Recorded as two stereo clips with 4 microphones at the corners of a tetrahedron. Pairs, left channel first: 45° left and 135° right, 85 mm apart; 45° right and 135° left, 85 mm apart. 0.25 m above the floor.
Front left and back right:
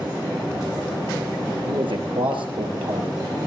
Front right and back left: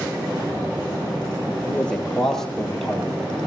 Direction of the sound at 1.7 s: 120° right.